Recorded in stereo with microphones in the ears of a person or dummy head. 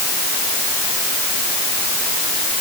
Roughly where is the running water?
No running water in this recording.